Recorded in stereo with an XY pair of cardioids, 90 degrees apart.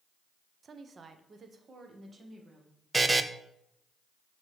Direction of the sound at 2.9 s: 20° right.